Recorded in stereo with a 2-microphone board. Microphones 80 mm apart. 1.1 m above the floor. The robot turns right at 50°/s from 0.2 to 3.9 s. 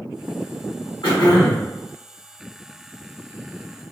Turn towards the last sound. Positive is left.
turn(degrees=-125)